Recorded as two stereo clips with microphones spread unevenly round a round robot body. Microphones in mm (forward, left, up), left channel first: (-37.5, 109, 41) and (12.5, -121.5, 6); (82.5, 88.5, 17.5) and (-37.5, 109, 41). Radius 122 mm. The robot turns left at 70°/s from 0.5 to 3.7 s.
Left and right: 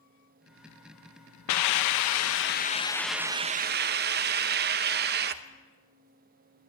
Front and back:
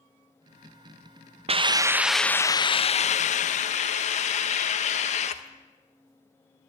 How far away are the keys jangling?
No keys jangling in this recording.